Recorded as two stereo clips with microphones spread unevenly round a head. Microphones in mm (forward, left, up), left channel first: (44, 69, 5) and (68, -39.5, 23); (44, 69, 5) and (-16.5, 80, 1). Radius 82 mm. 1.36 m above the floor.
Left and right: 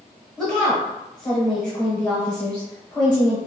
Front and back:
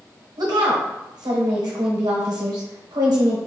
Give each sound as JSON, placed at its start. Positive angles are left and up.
{"t": 0.4, "sound": "a woman speaking", "azimuth_deg": -175, "distance_m": 1.3}